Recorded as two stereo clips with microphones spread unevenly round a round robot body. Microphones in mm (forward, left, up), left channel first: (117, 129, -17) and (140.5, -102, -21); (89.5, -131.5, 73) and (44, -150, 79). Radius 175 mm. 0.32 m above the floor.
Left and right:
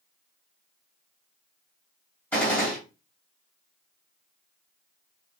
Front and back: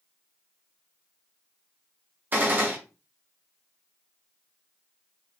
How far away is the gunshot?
About 1.7 m.